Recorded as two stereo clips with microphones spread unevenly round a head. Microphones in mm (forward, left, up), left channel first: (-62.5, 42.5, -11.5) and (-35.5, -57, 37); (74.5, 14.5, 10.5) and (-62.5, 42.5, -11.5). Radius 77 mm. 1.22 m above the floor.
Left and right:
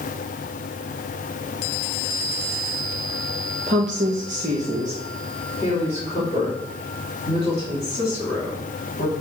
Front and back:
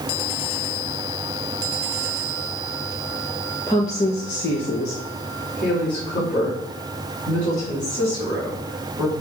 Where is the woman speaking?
90° right, 1.1 m; by 9.1 s 25° left, 8 m.